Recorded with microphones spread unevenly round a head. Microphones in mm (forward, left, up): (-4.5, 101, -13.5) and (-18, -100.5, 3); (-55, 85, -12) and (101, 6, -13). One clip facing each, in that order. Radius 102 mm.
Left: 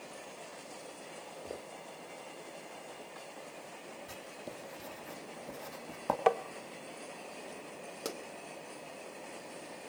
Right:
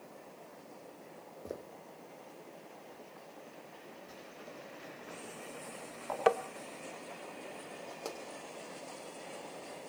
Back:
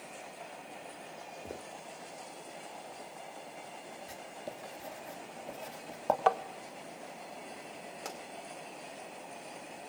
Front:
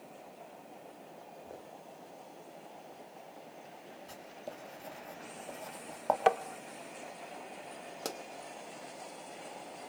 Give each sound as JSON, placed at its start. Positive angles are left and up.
{"t": 1.4, "sound": "footsteps", "azimuth_deg": -160, "distance_m": 3.0}
{"t": 4.1, "sound": "writing", "azimuth_deg": 75, "distance_m": 3.0}
{"t": 6.3, "sound": "tapping", "azimuth_deg": -10, "distance_m": 0.7}
{"t": 8.1, "sound": "a pop", "azimuth_deg": 15, "distance_m": 2.0}